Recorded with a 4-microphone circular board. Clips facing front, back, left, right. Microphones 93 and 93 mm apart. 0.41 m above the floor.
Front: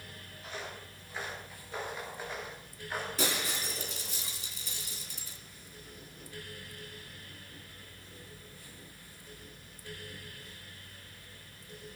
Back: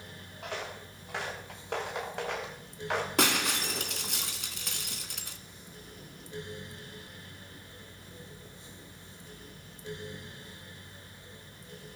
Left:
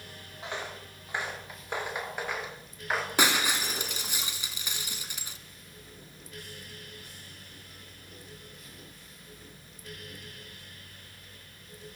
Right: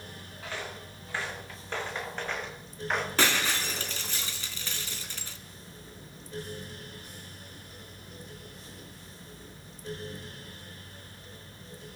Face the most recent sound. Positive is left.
turn(degrees=165)